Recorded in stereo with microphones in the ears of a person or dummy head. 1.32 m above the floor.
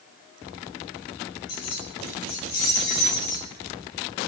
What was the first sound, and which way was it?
Keys jangling, 80° left.